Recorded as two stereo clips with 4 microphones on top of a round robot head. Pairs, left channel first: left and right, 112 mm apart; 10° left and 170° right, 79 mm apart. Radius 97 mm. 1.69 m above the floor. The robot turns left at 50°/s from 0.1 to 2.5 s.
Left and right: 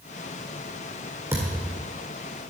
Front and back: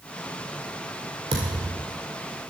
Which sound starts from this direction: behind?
A thud, at 1.3 s.